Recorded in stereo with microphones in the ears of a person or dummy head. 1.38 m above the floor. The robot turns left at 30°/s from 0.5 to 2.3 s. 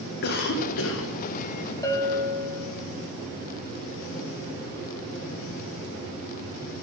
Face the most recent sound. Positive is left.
turn(degrees=5)  # may be behind; listen again after turning